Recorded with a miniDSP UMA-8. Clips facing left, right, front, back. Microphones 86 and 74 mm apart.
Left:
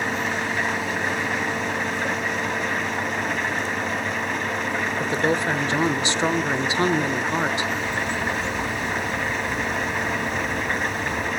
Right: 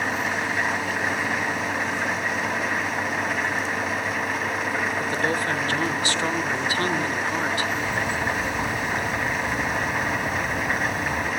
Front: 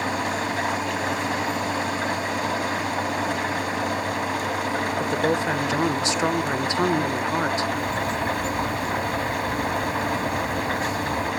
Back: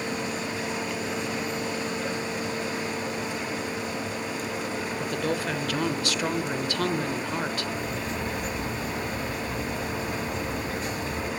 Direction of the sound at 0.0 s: 5° right.